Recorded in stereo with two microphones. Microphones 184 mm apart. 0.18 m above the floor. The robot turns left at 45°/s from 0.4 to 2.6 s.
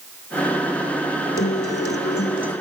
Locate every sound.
1.4 s a guitar: 100° left, 0.7 m; by 2.5 s 45° left, 0.7 m